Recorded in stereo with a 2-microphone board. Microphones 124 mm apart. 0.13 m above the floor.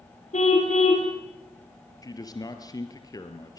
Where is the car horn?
70° left (ahead or behind), 4 m.